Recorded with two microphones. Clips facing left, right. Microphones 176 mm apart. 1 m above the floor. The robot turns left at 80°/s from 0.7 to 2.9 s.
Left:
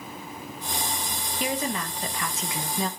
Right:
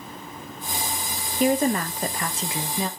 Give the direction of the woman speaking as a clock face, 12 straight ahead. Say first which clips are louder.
Right 9 dB; 2 o'clock.